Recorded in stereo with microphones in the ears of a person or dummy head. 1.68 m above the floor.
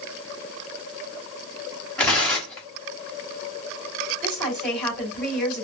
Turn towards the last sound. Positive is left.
turn(degrees=0)  # may be behind; listen again after turning